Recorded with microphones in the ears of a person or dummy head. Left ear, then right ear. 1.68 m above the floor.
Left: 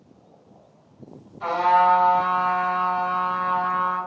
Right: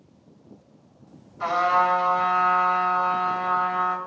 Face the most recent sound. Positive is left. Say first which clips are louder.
# left 3 dB
turn(degrees=-55)  # may be behind; listen again after turning